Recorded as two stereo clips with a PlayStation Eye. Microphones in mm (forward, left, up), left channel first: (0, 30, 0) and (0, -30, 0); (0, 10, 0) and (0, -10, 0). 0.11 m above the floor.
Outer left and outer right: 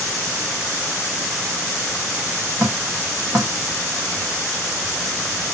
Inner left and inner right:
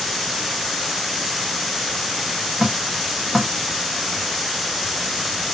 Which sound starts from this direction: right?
Dripping, at 2.6 s.